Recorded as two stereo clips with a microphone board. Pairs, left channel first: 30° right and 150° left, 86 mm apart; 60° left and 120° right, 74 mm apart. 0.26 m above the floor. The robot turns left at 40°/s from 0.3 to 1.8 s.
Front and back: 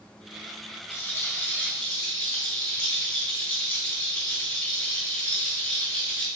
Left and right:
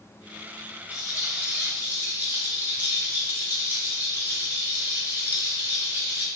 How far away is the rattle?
About 1.7 m.